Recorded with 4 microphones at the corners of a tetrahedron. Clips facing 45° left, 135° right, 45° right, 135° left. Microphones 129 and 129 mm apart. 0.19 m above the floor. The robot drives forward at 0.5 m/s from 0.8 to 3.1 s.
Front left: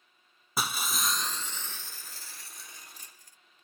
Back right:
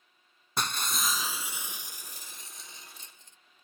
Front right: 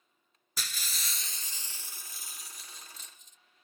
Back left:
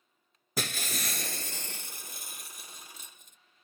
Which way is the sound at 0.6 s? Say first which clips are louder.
Even, back left 9 dB; 130° left.